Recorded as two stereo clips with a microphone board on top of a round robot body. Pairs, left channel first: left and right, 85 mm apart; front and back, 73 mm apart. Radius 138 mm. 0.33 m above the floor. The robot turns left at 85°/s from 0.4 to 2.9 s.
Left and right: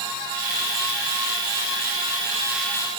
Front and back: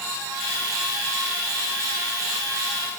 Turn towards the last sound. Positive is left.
No sound to turn to.